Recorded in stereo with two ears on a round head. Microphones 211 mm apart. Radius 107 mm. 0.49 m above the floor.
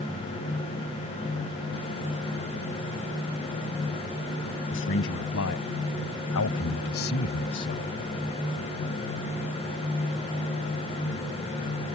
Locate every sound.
4.7 s a man speaking: 55° left (ahead or behind); by 7.9 s 45° left (ahead or behind)